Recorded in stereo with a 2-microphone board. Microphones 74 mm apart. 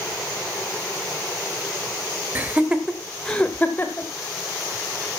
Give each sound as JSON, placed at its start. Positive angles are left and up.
{"t": 2.4, "sound": "laughter", "side_deg": -25, "distance_m": 1.2}